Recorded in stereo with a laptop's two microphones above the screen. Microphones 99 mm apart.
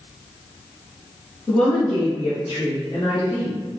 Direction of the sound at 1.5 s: 5° left (ahead or behind).